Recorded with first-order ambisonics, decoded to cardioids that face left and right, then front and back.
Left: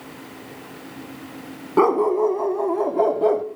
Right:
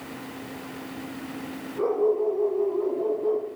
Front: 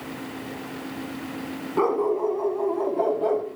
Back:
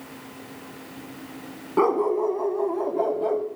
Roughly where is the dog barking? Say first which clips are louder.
Left 6 dB, back 1 dB; left.